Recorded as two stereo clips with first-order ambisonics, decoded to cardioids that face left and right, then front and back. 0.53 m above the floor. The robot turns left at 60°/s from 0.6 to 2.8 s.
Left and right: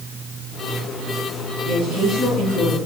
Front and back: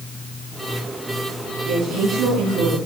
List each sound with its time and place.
1.6 s a woman speaking: 125° right, 4.5 m; by 2.8 s 170° left, 4.5 m